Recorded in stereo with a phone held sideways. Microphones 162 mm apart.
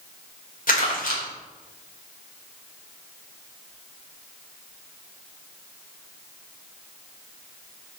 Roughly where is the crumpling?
Left.